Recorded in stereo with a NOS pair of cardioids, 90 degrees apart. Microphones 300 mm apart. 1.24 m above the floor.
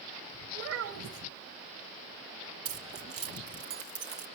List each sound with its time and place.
0.5 s a child speaking: 65° right, 1.8 m
2.6 s keys jangling: 65° right, 2.5 m